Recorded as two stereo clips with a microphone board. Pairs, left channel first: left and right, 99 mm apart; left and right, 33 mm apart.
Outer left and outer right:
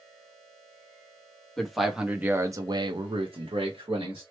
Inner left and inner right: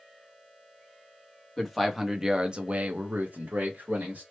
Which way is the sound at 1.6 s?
5° left (ahead or behind).